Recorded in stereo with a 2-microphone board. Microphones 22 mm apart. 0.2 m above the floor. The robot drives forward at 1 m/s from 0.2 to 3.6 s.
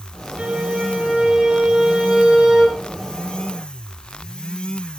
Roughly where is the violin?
Right.